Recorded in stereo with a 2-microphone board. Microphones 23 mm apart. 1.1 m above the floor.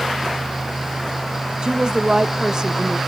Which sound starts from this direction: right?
A woman speaking, at 1.6 s.